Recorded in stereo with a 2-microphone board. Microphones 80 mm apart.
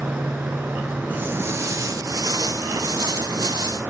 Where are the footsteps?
20° right (ahead or behind), 1.2 m; by 3.8 s 55° right (ahead or behind), 2.5 m.